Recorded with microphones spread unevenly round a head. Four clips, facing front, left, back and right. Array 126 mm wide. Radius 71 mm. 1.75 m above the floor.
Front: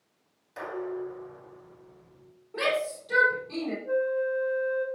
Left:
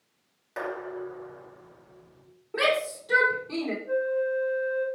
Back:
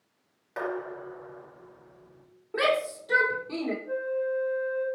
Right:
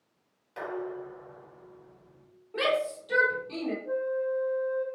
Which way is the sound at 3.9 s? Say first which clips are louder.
Left 4 dB, front 6 dB; 20° right.